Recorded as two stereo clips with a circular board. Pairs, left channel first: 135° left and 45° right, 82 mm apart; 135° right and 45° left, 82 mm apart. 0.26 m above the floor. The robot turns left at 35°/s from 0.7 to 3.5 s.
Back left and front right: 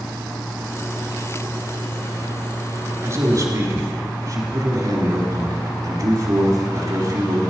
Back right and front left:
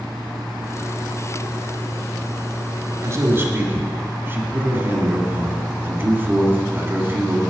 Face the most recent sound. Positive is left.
turn(degrees=-10)